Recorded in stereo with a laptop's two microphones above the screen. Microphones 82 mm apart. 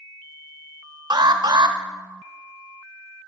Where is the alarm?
55° right (ahead or behind), 0.9 m.